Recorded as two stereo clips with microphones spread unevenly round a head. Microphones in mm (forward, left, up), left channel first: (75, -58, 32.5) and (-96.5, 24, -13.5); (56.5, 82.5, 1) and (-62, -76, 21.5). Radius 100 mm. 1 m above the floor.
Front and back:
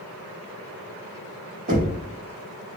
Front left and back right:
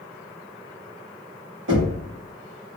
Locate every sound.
1.7 s knocking: 160° right, 1.1 m